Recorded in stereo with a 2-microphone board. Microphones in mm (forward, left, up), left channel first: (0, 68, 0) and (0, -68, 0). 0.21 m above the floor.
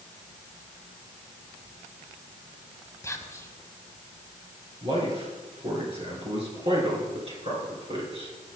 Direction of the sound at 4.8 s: 45° right (ahead or behind).